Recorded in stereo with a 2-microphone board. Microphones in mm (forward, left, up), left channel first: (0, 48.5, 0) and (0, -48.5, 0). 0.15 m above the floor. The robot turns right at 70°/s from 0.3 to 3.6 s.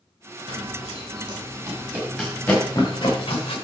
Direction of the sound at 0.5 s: 70° right (ahead or behind).